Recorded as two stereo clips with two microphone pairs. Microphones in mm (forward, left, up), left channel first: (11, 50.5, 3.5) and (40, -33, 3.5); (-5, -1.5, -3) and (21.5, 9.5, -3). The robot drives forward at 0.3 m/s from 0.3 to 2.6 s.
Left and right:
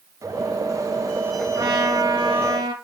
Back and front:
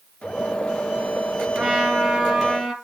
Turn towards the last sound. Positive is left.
turn(degrees=-55)